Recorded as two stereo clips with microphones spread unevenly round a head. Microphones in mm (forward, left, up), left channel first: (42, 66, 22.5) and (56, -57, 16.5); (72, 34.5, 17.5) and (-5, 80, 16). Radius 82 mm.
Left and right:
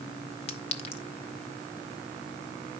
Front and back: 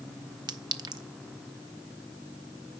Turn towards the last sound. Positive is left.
turn(degrees=130)